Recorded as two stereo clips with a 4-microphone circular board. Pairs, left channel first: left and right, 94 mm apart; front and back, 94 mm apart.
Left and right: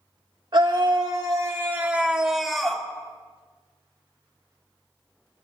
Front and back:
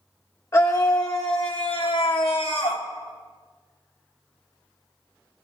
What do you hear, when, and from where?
0.5 s a scream: 55° right, 2 m; by 2.9 s 5° left, 2.5 m